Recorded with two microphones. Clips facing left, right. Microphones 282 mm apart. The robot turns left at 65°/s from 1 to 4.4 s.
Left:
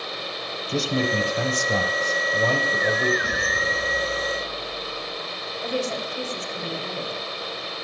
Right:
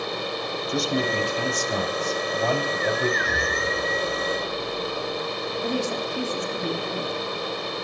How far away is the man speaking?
About 3 m.